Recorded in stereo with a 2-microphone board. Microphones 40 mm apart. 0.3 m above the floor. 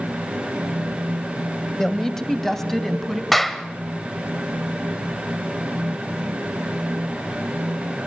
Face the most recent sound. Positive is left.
turn(degrees=5)  # may be behind; listen again after turning